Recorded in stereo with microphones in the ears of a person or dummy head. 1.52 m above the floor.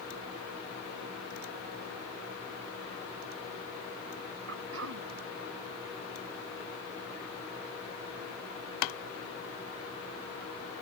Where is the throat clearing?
85° right.